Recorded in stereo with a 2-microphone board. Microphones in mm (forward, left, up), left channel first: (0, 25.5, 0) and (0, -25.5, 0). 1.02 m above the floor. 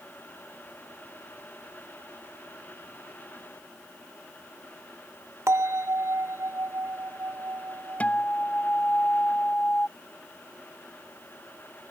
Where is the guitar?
30° left (ahead or behind).